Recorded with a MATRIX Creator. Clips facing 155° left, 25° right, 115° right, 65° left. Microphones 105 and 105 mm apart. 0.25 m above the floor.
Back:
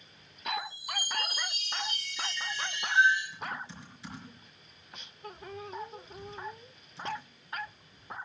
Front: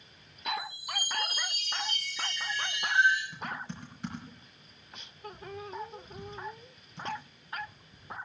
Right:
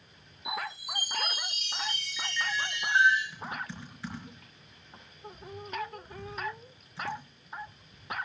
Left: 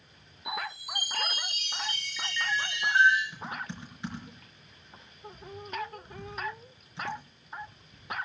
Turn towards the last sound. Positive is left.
turn(degrees=0)